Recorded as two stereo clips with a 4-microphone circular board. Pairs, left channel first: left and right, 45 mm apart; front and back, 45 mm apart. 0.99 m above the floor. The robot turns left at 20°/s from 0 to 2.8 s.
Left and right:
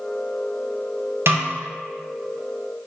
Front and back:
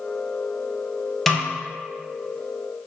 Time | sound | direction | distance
1.3 | a snare drum | 80° right | 0.7 m